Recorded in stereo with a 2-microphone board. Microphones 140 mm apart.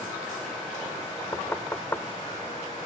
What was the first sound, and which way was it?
Knocking, 15° left (ahead or behind).